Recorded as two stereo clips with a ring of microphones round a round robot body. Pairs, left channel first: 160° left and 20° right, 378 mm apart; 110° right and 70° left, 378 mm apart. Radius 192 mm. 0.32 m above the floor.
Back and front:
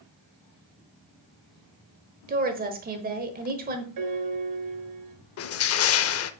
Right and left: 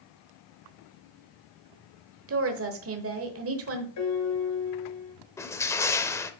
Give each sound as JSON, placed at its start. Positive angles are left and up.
{"t": 2.3, "sound": "a woman speaking", "azimuth_deg": 35, "distance_m": 1.1}
{"t": 4.0, "sound": "a piano", "azimuth_deg": -65, "distance_m": 1.2}
{"t": 5.4, "sound": "crushing", "azimuth_deg": 170, "distance_m": 0.5}